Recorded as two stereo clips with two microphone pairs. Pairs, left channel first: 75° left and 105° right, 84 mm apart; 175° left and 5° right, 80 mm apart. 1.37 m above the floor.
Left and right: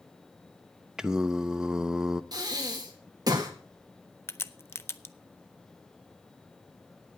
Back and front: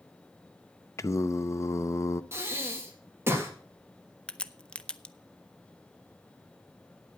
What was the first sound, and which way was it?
Singing, straight behind.